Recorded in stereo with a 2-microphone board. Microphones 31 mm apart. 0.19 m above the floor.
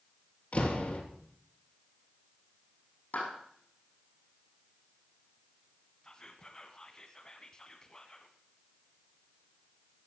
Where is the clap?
65° left (ahead or behind), 6 m.